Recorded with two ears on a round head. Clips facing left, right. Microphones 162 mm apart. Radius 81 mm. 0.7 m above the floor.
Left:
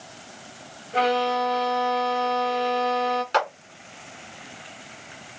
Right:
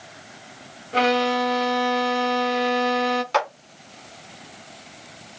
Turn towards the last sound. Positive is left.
turn(degrees=0)  # may be behind; listen again after turning